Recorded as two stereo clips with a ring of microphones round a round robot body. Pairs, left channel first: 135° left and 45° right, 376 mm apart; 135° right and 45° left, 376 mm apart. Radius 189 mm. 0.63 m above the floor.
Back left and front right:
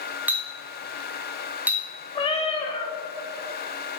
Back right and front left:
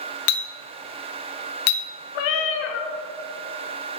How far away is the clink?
About 0.7 m.